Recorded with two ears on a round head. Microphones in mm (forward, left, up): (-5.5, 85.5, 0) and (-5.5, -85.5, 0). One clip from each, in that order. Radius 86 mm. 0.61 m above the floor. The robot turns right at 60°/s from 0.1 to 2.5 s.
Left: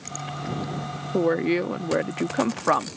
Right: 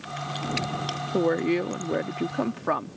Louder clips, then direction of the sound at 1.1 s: Left 2 dB; centre (ahead or behind).